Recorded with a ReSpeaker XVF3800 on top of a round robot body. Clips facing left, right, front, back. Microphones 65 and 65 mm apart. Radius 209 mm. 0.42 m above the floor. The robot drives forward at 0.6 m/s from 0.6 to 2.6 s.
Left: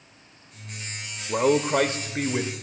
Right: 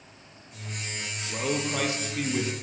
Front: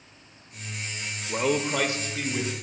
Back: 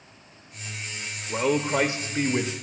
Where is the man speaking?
90° left, 0.9 m; by 2.5 s 145° left, 1.2 m.